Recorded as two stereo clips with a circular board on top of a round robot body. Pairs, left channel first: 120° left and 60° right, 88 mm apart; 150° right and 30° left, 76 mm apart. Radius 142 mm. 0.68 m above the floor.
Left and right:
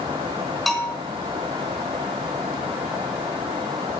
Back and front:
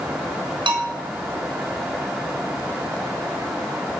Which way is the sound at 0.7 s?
30° left.